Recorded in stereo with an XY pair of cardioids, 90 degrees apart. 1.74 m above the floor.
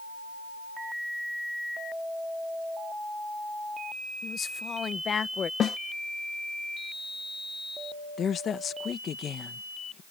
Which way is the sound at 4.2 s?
50° left.